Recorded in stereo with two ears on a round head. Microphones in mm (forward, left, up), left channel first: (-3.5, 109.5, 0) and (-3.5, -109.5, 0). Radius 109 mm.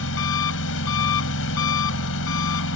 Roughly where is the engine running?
Left.